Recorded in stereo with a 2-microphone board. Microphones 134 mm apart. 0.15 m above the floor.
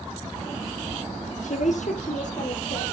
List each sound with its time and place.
1.4 s a woman speaking: 60° left (ahead or behind), 3 m; by 2.9 s 70° left (ahead or behind), 4.5 m